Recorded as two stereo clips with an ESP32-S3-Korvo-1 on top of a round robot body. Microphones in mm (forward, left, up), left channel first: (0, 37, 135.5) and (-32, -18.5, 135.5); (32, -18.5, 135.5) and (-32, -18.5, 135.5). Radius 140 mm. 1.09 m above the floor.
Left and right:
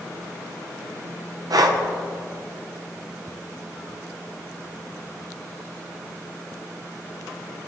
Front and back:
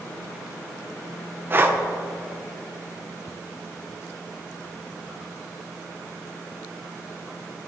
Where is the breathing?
125° right, 0.7 m.